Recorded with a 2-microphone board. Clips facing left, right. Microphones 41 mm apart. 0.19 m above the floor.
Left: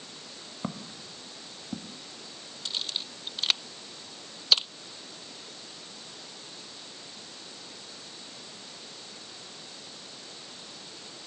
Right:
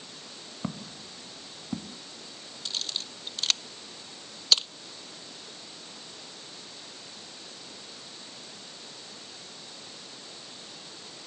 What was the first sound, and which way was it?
Footsteps, 10° left (ahead or behind).